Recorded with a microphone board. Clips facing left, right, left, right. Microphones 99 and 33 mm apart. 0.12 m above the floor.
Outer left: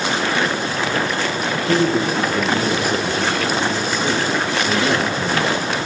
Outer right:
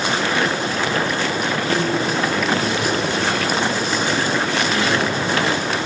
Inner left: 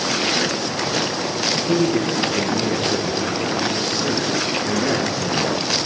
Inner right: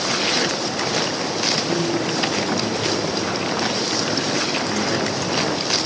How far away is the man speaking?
About 2 m.